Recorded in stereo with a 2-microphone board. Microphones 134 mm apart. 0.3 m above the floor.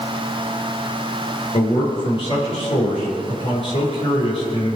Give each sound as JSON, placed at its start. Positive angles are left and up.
{"t": 1.5, "sound": "a man speaking", "side_deg": 45, "distance_m": 5.5}